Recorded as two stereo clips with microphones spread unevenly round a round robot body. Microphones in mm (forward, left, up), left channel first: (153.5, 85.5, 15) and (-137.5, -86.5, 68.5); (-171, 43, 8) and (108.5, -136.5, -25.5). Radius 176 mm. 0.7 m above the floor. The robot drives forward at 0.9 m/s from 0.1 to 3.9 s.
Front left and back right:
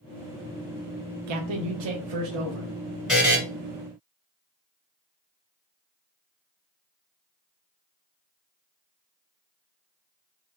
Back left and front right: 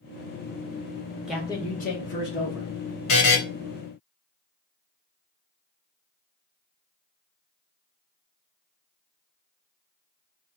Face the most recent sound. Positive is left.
turn(degrees=145)